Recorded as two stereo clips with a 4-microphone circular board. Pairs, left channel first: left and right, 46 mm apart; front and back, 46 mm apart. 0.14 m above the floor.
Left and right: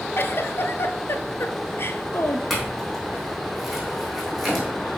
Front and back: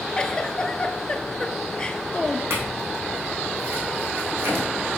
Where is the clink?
175° right, 3.5 m.